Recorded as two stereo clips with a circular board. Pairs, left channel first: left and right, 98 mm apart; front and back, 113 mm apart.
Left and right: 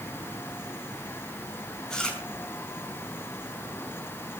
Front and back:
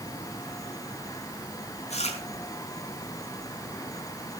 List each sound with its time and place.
1.9 s chewing: 10° left, 4 m